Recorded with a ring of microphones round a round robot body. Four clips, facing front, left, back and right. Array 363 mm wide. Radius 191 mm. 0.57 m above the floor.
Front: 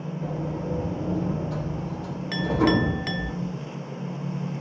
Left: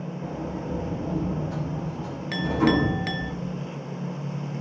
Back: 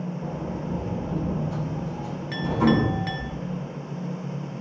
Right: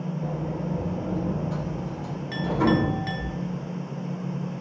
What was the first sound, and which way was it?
A sliding door, 20° right.